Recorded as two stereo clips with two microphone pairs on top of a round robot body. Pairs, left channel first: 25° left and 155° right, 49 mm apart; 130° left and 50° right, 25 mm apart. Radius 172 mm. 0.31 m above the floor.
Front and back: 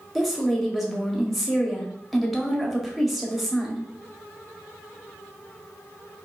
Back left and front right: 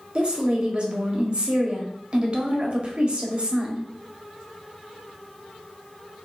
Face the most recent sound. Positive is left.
turn(degrees=-75)